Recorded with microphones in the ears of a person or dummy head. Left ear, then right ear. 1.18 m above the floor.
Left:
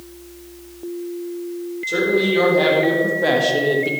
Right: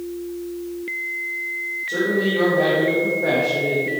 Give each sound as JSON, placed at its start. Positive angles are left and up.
{"t": 1.9, "sound": "a woman speaking", "side_deg": 85, "distance_m": 4.5}